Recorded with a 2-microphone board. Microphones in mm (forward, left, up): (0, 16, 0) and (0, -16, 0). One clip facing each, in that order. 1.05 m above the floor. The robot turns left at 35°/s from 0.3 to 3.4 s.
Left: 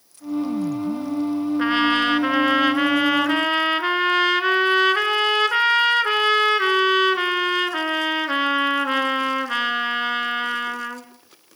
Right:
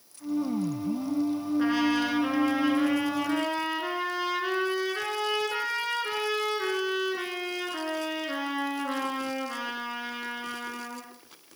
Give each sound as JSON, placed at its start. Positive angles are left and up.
{"t": 1.6, "sound": "a trumpet", "azimuth_deg": 135, "distance_m": 2.0}